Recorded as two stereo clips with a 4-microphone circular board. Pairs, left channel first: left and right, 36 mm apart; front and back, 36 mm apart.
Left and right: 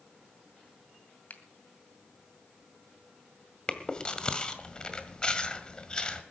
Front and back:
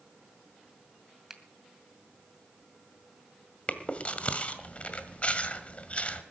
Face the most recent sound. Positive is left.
turn(degrees=35)